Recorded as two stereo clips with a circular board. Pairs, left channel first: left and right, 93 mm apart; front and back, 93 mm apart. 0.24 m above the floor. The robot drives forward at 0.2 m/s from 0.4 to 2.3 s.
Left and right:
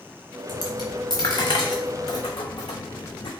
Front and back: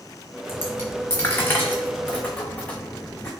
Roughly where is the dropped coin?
Ahead left.